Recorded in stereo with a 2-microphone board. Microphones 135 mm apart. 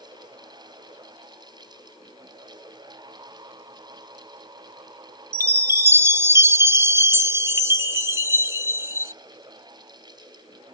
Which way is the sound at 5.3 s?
20° right (ahead or behind).